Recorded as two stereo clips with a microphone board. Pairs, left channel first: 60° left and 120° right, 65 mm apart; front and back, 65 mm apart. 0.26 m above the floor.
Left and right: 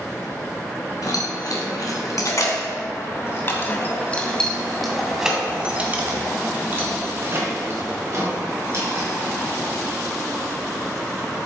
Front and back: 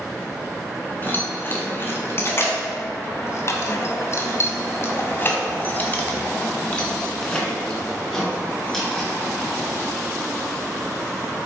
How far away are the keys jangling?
About 2 m.